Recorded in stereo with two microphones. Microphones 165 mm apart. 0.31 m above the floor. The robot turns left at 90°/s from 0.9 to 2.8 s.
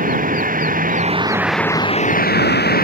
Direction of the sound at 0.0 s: 125° right.